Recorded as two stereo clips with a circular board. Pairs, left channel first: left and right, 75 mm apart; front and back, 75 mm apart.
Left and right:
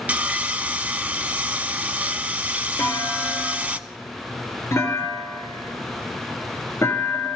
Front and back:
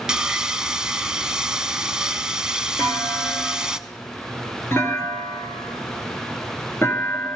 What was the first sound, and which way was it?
Sawing, 115° right.